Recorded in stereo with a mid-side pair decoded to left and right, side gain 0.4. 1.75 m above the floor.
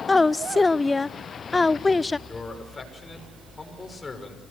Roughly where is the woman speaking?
Ahead left.